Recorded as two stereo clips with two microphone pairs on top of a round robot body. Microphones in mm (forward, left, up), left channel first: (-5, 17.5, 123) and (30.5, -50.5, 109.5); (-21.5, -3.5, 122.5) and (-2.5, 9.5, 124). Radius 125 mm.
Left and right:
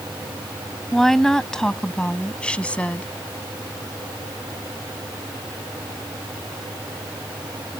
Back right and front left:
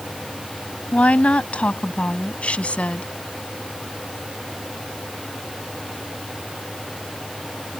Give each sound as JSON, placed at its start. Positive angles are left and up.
{"t": 0.9, "sound": "a woman speaking", "azimuth_deg": -155}